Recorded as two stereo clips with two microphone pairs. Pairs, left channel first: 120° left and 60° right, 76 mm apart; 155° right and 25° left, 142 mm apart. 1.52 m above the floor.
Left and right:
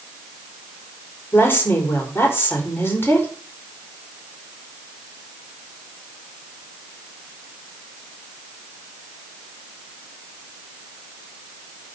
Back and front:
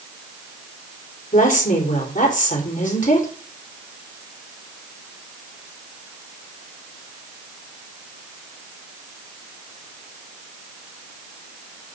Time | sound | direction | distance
1.3 | a woman speaking | straight behind | 4.5 m